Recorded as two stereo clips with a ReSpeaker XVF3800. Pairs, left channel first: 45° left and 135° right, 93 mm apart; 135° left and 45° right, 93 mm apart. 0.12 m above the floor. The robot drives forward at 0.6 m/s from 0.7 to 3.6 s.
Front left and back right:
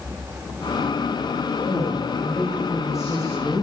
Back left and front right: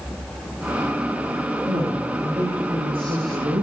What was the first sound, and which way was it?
A woman speaking, 20° right.